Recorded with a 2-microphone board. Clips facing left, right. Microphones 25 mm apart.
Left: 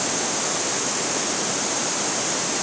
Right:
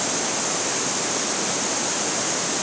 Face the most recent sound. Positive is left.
No sound to turn to.